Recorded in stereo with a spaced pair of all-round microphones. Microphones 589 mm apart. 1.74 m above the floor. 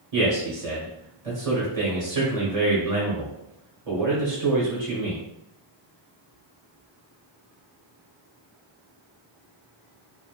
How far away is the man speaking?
About 0.9 m.